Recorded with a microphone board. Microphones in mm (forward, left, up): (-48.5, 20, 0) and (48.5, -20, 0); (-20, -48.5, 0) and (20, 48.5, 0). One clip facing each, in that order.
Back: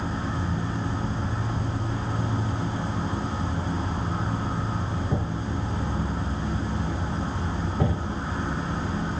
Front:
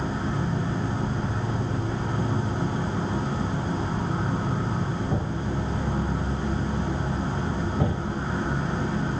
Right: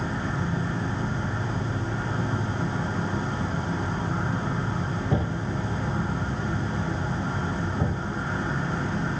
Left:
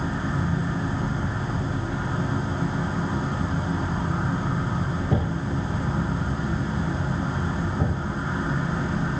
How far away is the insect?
About 0.7 m.